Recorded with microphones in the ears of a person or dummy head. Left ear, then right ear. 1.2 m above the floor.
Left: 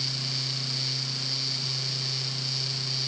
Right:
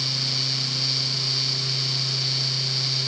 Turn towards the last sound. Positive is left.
No sound to turn to.